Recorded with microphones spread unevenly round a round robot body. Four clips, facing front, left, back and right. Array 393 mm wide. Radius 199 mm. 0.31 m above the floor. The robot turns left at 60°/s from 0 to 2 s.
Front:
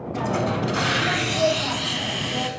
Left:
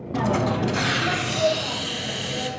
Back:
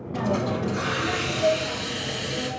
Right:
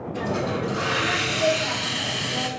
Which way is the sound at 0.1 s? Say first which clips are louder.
Left 4 dB, front 1 dB; 90° left.